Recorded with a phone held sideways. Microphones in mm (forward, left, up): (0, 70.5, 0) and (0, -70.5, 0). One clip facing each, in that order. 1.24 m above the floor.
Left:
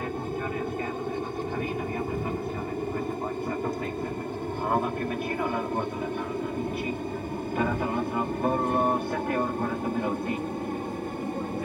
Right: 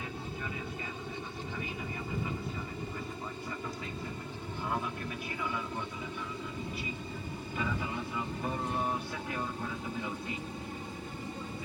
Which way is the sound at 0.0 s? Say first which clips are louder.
Left 9 dB; 55° left (ahead or behind).